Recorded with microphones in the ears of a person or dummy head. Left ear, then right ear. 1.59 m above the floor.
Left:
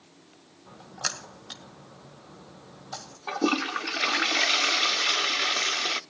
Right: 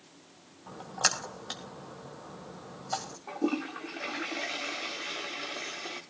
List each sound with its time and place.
0.7 s a splash: 20° right (ahead or behind), 1.9 m
3.3 s a toilet flushing: 60° left (ahead or behind), 0.6 m